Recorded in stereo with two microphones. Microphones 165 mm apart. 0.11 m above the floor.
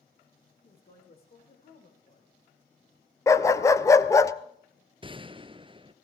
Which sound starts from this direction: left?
A woman speaking, at 0.6 s.